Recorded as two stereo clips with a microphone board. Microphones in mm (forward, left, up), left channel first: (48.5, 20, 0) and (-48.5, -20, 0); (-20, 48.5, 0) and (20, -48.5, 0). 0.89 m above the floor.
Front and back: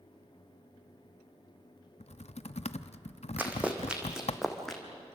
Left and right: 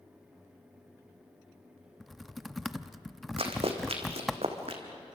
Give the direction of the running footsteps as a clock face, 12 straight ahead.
3 o'clock.